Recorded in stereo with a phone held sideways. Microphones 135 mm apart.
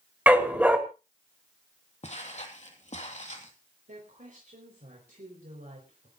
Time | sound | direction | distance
0.3 | a dog barking | 10° right (ahead or behind) | 2.0 m
2.0 | footsteps | 55° left (ahead or behind) | 2.5 m
3.9 | a woman speaking | 80° right | 4 m